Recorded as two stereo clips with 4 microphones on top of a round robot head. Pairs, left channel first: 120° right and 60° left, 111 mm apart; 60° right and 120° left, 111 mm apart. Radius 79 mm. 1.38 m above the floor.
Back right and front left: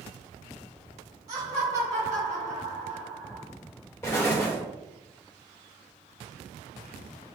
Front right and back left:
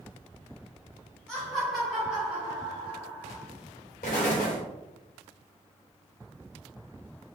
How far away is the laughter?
About 1.7 m.